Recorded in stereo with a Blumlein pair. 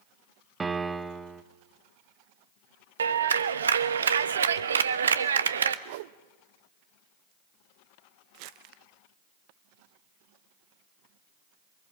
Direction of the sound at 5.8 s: 50° right.